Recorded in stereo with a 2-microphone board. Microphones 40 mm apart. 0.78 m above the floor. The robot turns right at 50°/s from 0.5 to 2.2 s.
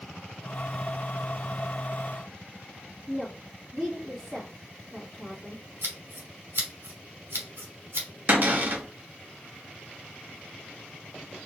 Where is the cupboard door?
45° right (ahead or behind), 1.2 m.